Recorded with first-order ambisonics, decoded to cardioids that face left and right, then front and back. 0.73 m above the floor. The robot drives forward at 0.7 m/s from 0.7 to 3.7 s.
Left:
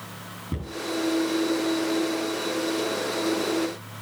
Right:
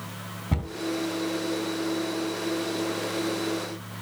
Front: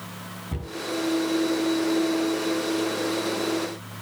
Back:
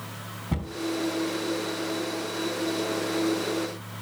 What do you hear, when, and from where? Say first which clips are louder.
0.5 s a cupboard door: right 4 dB, back 6 dB; 110° right, 3 m